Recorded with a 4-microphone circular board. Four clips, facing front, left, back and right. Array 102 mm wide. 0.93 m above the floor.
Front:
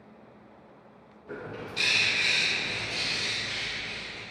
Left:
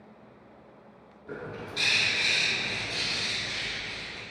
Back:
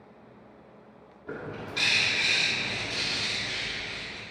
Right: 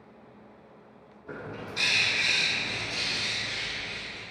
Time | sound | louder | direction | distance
1.3 | a bird | even, back 1 dB | 165° right | 1.3 m